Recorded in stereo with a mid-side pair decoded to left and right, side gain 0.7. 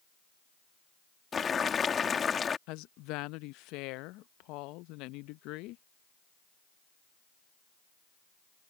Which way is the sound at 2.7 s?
65° left.